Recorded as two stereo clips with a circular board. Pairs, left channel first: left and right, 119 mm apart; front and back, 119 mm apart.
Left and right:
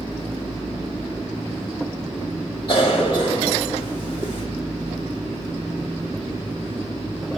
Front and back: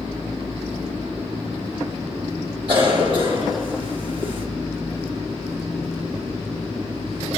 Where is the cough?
135° left, 1.5 m.